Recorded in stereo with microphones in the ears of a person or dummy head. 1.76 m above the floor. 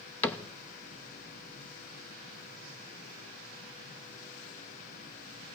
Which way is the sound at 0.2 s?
10° left (ahead or behind).